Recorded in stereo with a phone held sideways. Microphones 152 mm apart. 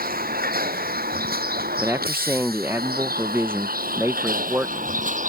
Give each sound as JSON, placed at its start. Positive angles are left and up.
{"t": 0.0, "sound": "a vehicle", "side_deg": -80}
{"t": 1.8, "sound": "a man speaking", "side_deg": -15}